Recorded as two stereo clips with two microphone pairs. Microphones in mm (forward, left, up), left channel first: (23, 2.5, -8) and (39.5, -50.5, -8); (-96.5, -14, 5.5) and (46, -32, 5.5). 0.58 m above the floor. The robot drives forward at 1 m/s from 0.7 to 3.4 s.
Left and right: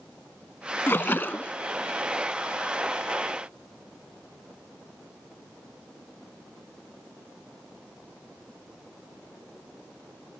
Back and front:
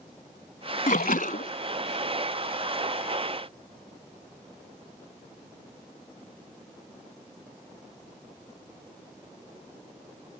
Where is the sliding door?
I don't hear a sliding door.